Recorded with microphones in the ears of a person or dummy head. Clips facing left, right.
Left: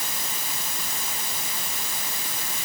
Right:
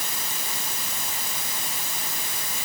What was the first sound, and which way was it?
Only background noise.